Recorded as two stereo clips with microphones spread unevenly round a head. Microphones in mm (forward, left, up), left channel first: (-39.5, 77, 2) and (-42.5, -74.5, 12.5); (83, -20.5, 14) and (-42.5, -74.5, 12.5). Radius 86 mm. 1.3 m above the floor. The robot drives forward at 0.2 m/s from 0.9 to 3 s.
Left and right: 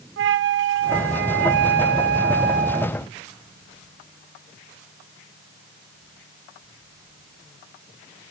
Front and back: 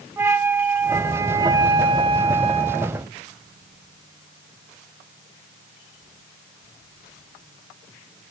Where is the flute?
80° right, 0.6 m; by 3.0 s 120° right, 0.7 m.